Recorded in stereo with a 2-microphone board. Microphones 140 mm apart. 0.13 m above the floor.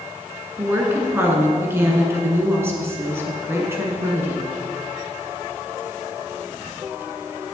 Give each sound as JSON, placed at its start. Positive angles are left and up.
{"t": 0.6, "sound": "a woman speaking", "side_deg": -15, "distance_m": 1.5}